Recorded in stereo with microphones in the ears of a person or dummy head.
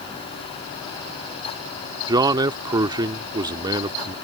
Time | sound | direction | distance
2.1 | a man speaking | 20° right (ahead or behind) | ?